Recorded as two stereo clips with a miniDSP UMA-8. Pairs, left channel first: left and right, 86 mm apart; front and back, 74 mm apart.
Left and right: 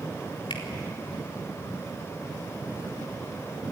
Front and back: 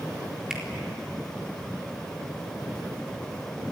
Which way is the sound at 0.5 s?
100° left.